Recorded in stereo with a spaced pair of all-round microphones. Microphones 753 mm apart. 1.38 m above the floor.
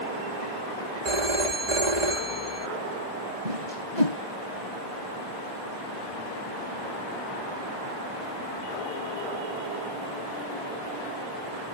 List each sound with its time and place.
1.1 s a phone ringing: 60° right (ahead or behind)
3.5 s a whoosh: 65° right (ahead or behind)